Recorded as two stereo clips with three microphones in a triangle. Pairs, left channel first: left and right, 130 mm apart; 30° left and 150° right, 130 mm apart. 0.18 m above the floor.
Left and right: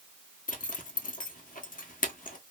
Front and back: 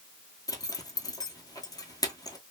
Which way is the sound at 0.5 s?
90° left.